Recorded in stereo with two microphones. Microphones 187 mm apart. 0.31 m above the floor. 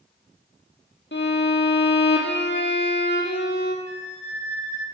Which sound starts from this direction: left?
A violin, at 1.1 s.